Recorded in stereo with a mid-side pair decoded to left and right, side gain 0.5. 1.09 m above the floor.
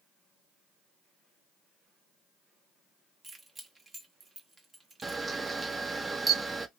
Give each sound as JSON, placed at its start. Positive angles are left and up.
{"t": 3.2, "sound": "keys jangling", "azimuth_deg": -25, "distance_m": 1.2}
{"t": 5.0, "sound": "a camera shutter", "azimuth_deg": -20, "distance_m": 0.7}